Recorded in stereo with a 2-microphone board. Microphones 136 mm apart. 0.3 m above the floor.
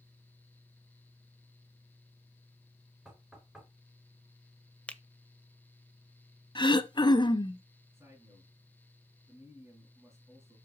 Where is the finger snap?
10° left (ahead or behind), 0.7 m.